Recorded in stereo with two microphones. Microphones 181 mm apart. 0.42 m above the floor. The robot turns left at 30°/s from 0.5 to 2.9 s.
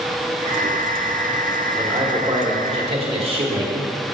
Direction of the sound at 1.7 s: 20° right.